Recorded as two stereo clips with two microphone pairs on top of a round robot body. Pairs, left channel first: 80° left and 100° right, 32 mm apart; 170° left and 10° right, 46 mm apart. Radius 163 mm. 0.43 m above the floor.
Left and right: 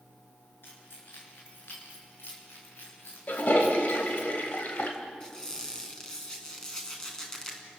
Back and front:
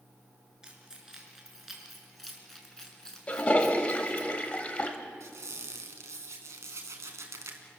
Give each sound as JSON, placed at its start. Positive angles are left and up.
{"t": 0.6, "sound": "keys jangling", "azimuth_deg": 65, "distance_m": 7.0}
{"t": 3.3, "sound": "a toilet flushing", "azimuth_deg": 110, "distance_m": 2.5}
{"t": 5.2, "sound": "a squeak", "azimuth_deg": 5, "distance_m": 3.0}